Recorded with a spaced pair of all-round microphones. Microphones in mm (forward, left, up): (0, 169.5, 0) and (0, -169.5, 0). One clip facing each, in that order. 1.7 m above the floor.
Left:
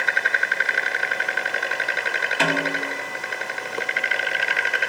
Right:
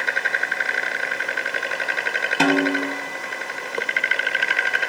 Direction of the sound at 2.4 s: 55° right (ahead or behind).